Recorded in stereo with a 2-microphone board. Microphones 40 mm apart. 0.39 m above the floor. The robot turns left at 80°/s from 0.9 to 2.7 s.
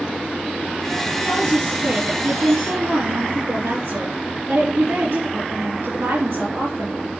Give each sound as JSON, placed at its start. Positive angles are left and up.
{"t": 1.2, "sound": "a woman speaking", "azimuth_deg": 25, "distance_m": 4.5}